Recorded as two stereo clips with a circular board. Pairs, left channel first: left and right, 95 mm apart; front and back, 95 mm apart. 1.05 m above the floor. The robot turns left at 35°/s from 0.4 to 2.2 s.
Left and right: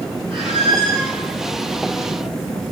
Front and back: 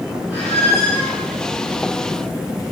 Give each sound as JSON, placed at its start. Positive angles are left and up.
{"t": 0.3, "sound": "a squeak", "azimuth_deg": -110, "distance_m": 5.0}